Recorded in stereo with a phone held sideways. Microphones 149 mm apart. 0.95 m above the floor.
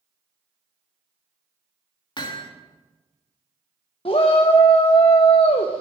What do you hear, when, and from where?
2.2 s hammering: 30° left (ahead or behind), 1.6 m
4.0 s a shout: 40° left (ahead or behind), 0.9 m